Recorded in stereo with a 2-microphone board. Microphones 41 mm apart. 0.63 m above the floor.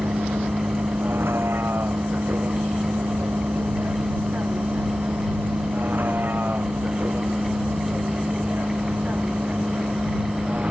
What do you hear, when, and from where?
0.0 s a vehicle: 65° right (ahead or behind); by 10.7 s 35° right (ahead or behind)